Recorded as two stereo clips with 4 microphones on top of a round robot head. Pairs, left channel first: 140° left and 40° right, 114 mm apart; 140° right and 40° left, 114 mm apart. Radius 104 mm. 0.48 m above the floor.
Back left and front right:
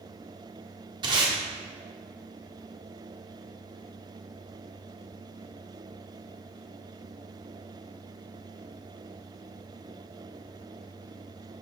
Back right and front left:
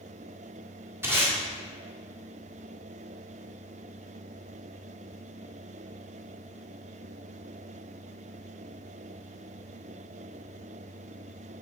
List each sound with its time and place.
1.0 s tape being pulled: 20° right, 1.8 m